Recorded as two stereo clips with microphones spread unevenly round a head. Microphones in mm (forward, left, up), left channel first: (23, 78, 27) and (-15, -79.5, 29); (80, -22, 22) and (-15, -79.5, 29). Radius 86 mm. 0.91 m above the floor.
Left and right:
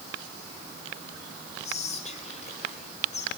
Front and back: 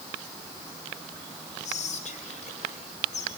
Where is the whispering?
25° left, 3.5 m.